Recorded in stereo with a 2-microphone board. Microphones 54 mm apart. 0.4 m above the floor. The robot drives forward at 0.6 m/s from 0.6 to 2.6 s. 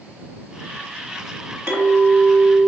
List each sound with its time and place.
1.7 s a clink: 55° right (ahead or behind), 1.5 m; by 2.7 s 40° right (ahead or behind), 1.9 m